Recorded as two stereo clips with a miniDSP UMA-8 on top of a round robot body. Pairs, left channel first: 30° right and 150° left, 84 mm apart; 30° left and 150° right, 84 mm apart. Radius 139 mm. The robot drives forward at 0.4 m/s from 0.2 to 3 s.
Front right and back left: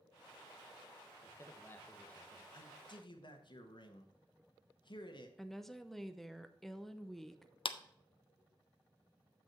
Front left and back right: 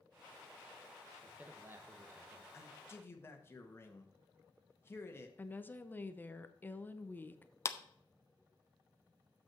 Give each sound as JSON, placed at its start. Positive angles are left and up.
{"t": 1.2, "sound": "a man speaking", "azimuth_deg": -75, "distance_m": 1.0}
{"t": 2.5, "sound": "a man speaking", "azimuth_deg": -25, "distance_m": 1.7}
{"t": 5.4, "sound": "a woman speaking", "azimuth_deg": 55, "distance_m": 0.9}
{"t": 7.7, "sound": "a clap", "azimuth_deg": -25, "distance_m": 0.7}